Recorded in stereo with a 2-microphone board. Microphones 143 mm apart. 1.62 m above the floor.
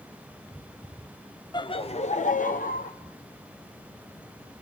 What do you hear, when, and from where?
1.5 s laughter: 30° left (ahead or behind), 0.7 m; by 2.9 s 80° left, 0.9 m